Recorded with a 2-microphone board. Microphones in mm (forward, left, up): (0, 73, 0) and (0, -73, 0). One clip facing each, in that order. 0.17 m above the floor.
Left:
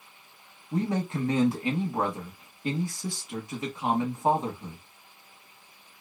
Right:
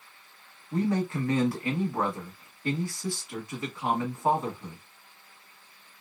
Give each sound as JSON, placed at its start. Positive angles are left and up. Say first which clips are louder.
{"t": 0.7, "sound": "a man speaking", "louder": "right 1 dB", "side_deg": 20, "distance_m": 1.0}